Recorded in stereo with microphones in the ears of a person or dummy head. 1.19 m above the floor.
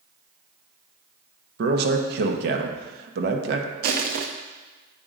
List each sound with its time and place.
1.6 s a man speaking: 70° right (ahead or behind), 0.9 m
3.8 s crushing: 50° right (ahead or behind), 0.5 m